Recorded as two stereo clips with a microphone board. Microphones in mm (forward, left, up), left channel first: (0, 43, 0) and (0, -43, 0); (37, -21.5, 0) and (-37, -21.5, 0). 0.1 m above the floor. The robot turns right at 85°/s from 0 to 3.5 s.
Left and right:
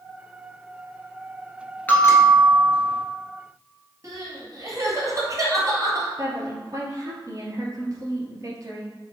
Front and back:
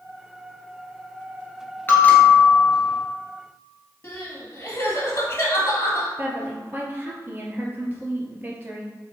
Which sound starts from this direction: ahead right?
Crying, at 4.0 s.